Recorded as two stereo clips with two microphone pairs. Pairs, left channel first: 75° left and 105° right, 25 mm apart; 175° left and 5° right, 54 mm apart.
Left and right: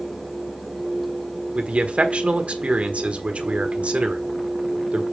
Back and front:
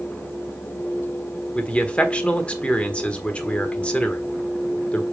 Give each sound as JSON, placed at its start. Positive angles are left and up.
{"t": 1.6, "sound": "a man speaking", "azimuth_deg": -120, "distance_m": 1.4}